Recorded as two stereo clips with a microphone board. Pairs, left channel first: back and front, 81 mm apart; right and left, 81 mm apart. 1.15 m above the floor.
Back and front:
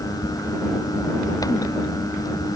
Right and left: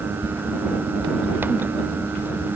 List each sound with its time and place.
Only background noise.